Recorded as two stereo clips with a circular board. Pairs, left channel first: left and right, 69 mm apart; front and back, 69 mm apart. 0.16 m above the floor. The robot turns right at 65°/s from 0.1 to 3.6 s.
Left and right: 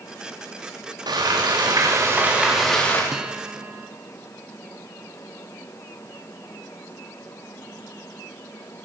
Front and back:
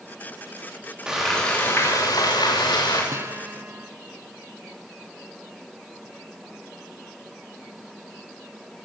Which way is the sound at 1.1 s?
100° right.